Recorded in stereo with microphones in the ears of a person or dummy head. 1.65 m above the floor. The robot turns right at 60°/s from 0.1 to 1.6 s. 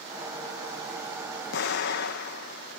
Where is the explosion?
75° left (ahead or behind), 2 m; by 2.8 s 70° left (ahead or behind), 2 m.